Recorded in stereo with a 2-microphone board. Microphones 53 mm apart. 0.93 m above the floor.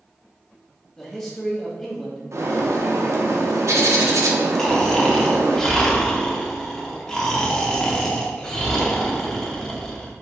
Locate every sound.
1.0 s a man speaking: 10° left (ahead or behind), 1.5 m
2.3 s a bird: 70° right (ahead or behind), 0.7 m
4.6 s snoring: 10° left (ahead or behind), 0.7 m